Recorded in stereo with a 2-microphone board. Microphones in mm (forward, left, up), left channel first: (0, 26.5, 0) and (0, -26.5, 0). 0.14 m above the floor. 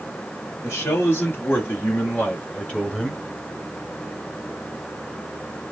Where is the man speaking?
50° left (ahead or behind), 2.5 m; by 3.2 s 10° left (ahead or behind), 1.6 m.